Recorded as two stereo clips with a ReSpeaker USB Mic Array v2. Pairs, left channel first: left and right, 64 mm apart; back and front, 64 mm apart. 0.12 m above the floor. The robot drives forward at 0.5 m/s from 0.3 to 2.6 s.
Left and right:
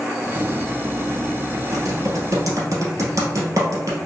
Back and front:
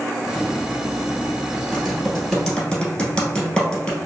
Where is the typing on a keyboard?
90° right, 1.2 m; by 4.0 s 110° right, 1.3 m.